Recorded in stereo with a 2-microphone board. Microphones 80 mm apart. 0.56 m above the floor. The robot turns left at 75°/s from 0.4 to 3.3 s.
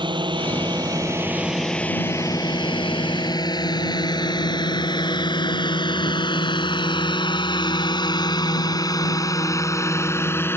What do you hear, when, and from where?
0.0 s a drone: 85° right; by 10.6 s 25° left (ahead or behind)